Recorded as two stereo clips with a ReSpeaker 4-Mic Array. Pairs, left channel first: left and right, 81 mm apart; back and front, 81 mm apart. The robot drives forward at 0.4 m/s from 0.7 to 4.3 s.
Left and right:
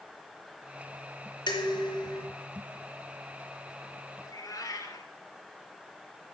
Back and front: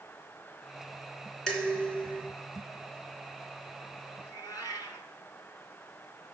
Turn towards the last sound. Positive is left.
turn(degrees=140)